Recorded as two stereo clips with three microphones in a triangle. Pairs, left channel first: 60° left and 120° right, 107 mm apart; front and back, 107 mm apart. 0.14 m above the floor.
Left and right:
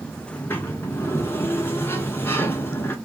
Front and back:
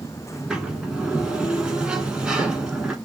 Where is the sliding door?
105° left, 1.3 m.